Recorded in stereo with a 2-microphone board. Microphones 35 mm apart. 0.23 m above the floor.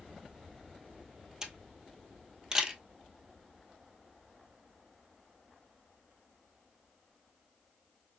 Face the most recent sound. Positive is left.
turn(degrees=-20)  # may be behind; listen again after turning